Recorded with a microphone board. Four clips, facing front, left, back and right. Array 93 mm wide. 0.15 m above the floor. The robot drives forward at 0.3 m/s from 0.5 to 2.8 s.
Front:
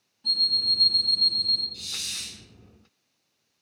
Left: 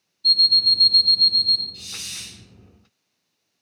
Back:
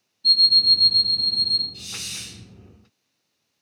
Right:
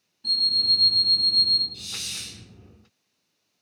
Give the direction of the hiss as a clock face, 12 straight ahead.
7 o'clock.